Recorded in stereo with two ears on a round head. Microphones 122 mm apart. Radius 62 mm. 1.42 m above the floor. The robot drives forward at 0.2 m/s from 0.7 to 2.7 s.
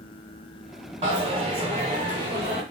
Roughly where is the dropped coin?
Right.